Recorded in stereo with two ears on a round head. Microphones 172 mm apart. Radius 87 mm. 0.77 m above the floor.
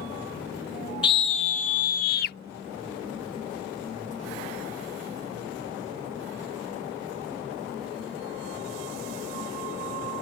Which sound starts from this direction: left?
A scream, at 1.0 s.